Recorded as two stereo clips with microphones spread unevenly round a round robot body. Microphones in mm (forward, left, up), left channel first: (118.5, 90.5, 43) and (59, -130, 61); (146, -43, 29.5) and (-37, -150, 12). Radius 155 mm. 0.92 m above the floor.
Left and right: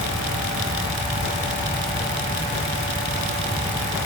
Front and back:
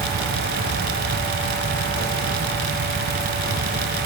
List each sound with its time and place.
Only background noise.